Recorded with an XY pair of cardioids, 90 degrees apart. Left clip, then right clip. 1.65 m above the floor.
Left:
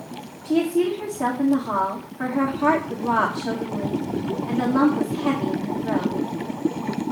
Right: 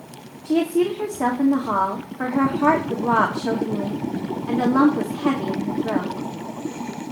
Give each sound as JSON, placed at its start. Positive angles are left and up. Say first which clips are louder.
{"t": 0.5, "sound": "a woman speaking", "louder": "right 1 dB", "azimuth_deg": -35, "distance_m": 2.0}